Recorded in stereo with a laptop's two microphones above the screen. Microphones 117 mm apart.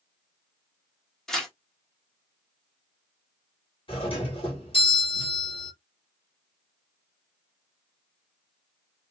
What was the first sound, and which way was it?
Tearing paper, 5° left (ahead or behind).